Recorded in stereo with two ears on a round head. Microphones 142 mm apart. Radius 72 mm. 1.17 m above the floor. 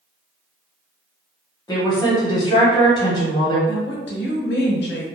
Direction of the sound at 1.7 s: 25° left (ahead or behind).